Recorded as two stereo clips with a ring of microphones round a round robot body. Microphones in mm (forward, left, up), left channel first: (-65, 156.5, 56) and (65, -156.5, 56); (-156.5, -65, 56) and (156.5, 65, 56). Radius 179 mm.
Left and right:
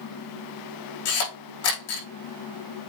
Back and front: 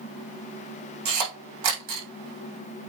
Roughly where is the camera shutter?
Ahead left.